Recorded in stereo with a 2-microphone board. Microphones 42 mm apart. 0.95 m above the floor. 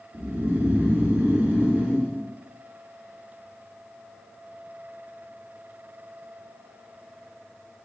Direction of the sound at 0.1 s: 60° right (ahead or behind).